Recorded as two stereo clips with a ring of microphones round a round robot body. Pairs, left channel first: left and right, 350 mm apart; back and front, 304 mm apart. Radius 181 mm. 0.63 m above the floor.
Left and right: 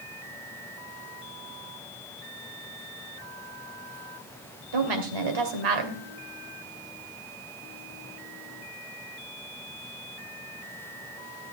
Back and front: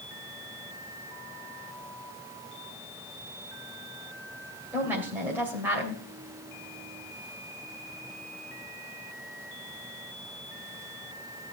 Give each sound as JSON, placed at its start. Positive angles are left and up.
{"t": 4.7, "sound": "a woman speaking", "azimuth_deg": -85, "distance_m": 2.5}